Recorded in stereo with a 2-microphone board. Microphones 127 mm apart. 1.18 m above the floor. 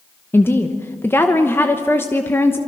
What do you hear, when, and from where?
0.3 s a woman speaking: 20° left (ahead or behind), 1.0 m